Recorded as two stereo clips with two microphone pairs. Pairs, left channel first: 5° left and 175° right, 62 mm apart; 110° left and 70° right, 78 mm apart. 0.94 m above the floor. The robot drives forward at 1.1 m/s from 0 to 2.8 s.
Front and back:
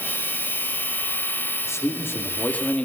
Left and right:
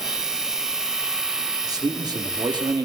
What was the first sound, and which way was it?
A man speaking, 35° right.